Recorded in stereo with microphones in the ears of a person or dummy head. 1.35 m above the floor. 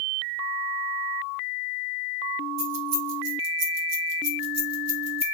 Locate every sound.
2.6 s keys jangling: 70° right (ahead or behind), 2.0 m; by 5.3 s 30° right (ahead or behind), 1.7 m